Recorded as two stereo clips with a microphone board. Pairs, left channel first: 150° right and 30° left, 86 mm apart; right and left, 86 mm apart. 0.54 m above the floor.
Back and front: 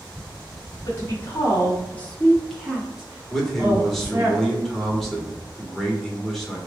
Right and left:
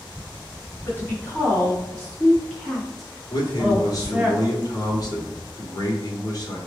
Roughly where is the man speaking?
Ahead right.